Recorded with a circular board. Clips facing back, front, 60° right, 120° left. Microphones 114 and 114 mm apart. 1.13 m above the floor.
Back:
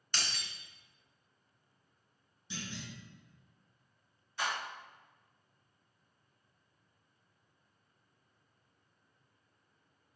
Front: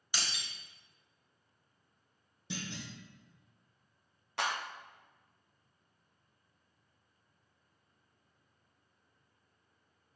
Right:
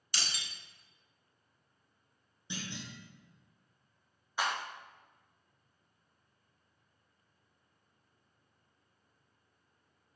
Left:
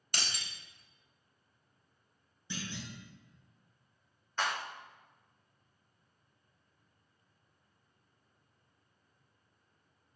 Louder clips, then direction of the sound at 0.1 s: Even, left 1 dB; 80° left.